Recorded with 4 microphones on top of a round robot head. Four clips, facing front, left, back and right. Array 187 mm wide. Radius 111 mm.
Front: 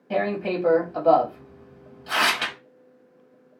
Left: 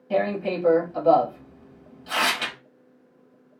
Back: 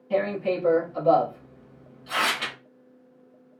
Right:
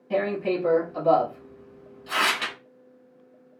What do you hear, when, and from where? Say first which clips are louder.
0.1 s tearing paper: left 1 dB, even; 10° left, 1.0 m